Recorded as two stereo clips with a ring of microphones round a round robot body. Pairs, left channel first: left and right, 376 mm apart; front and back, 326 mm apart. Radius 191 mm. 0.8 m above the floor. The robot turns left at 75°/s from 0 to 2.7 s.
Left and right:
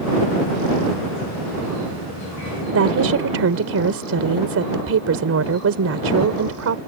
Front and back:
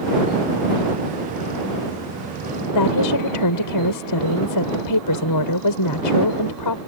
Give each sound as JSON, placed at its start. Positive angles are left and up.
{"t": 2.7, "sound": "a woman speaking", "azimuth_deg": -35}